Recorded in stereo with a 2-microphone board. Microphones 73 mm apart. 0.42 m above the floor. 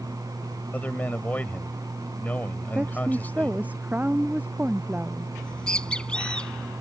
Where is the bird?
15° left (ahead or behind).